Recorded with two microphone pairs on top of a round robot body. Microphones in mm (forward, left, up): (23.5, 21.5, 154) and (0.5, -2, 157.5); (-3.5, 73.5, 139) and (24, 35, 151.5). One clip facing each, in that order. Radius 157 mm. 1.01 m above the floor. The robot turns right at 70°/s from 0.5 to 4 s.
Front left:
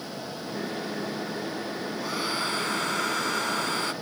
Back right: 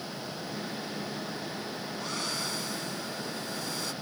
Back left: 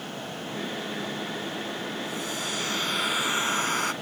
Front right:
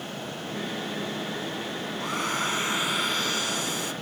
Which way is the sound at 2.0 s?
35° right.